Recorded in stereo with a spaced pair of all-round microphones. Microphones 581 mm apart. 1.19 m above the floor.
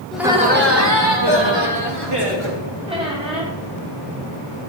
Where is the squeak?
10° right (ahead or behind), 2 m.